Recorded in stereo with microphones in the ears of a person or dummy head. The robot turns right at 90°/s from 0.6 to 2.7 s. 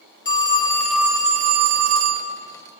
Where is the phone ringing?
150° left, 1.3 m; by 2.3 s 60° right, 1.3 m.